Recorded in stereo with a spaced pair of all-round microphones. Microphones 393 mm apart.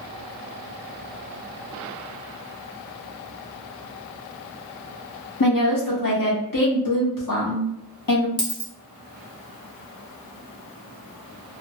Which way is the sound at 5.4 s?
60° left (ahead or behind).